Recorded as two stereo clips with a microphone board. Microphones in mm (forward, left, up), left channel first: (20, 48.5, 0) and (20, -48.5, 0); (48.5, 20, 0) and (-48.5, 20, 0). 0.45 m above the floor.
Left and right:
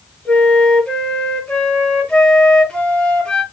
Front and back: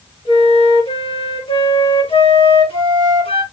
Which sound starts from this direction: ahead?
A flute, at 0.2 s.